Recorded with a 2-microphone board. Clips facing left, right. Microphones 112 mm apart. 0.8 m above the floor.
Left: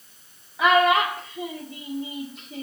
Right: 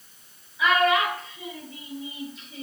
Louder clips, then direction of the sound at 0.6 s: Left 3 dB; 65° left (ahead or behind).